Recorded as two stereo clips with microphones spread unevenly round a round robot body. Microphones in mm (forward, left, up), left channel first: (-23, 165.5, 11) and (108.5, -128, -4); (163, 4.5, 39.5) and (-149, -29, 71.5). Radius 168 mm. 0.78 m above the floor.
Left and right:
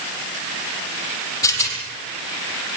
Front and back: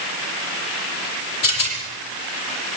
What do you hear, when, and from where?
1.4 s a rattle: 35° left, 8 m